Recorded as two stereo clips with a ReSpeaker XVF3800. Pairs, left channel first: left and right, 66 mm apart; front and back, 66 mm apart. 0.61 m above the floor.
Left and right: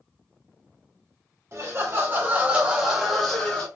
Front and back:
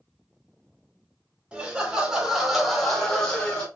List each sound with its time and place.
1.5 s laughter: 110° right, 1.2 m; by 3.7 s 45° left, 0.9 m